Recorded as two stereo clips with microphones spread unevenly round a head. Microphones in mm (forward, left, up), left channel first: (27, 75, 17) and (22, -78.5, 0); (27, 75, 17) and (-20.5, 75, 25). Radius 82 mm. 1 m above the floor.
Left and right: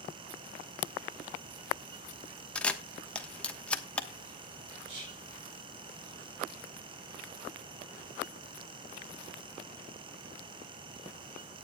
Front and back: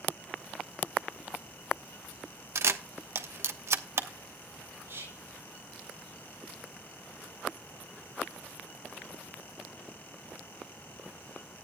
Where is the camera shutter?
175° left, 1.0 m.